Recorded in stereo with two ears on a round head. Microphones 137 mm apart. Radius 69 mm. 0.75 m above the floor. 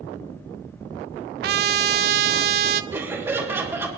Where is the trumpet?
70° right (ahead or behind), 0.6 m.